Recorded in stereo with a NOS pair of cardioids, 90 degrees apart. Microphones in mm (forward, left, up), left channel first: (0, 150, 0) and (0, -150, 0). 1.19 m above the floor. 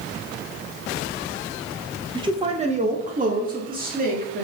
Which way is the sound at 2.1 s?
15° right.